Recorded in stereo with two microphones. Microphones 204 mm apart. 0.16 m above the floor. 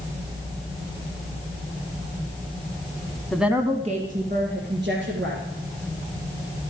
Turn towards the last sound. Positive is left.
turn(degrees=-65)  # may be behind; listen again after turning